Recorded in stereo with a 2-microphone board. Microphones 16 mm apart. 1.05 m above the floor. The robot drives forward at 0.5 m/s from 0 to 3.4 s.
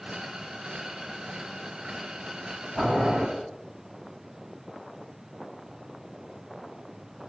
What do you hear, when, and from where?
2.8 s boiling: 45° right (ahead or behind), 1.7 m; by 3.2 s 40° right (ahead or behind), 1.9 m